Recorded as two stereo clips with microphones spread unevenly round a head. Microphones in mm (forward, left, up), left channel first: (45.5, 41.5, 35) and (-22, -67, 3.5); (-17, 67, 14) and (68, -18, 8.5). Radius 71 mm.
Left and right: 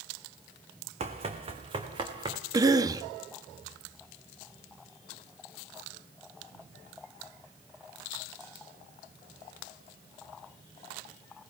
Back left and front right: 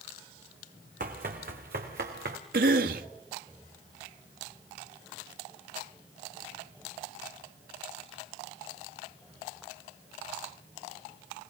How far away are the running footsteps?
About 3.5 m.